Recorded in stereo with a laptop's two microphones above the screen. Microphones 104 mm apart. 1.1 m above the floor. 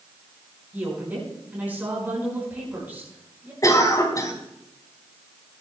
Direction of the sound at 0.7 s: 15° right (ahead or behind).